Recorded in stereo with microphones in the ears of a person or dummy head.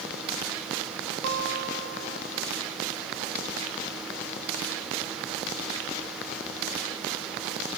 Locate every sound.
1.2 s a guitar: 75° right (ahead or behind)